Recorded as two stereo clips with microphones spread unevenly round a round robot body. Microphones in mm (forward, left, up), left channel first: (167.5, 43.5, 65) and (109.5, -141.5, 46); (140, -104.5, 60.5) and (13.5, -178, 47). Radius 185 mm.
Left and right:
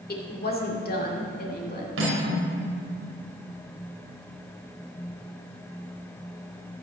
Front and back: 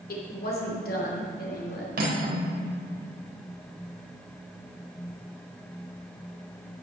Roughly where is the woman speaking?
Ahead left.